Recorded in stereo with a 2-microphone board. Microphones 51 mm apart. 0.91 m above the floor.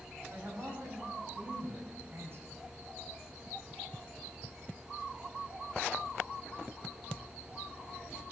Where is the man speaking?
50° right (ahead or behind), 5 m.